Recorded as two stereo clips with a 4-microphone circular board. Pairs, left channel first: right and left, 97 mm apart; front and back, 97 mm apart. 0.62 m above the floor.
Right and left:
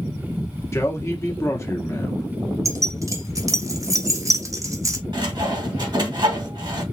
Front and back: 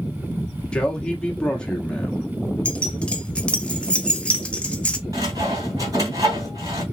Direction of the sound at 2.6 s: 70° left.